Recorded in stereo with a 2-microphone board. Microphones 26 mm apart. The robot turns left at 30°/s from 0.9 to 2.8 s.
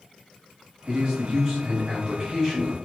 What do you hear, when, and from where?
0.9 s a man speaking: 110° right, 0.7 m; by 2.8 s 165° right, 0.7 m